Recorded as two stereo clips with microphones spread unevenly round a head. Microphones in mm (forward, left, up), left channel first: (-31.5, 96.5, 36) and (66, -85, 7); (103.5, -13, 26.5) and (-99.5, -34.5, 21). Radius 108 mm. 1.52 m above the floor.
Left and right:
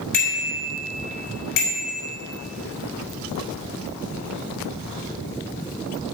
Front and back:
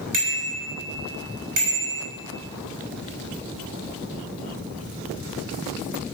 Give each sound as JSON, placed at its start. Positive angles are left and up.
{"t": 0.1, "sound": "a bicycle bell", "azimuth_deg": 150, "distance_m": 6.0}